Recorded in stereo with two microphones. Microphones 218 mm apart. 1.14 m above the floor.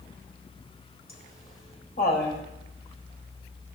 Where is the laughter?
45° left (ahead or behind), 4 m.